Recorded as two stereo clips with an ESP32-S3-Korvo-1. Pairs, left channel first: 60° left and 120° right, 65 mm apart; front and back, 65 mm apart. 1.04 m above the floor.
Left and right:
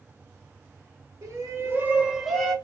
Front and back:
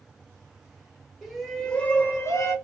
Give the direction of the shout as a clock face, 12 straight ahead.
3 o'clock.